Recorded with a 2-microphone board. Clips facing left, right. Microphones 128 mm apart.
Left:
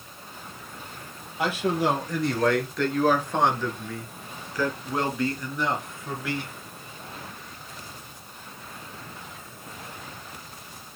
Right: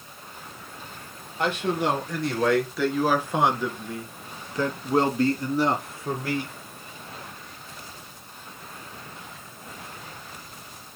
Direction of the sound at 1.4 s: 5° left (ahead or behind).